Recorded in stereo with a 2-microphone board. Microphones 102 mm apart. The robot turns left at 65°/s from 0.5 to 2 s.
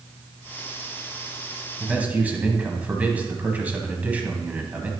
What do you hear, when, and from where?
1.8 s a man speaking: 10° right (ahead or behind), 1.4 m; by 4.9 s 15° right (ahead or behind), 1.4 m